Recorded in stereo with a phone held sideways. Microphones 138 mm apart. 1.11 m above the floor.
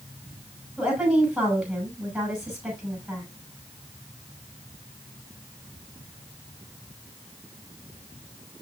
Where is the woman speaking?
5° right (ahead or behind), 6.5 m.